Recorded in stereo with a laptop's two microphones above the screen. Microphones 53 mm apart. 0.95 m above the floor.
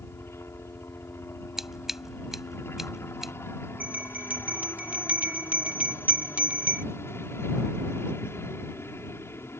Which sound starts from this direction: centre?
Scissors, at 1.6 s.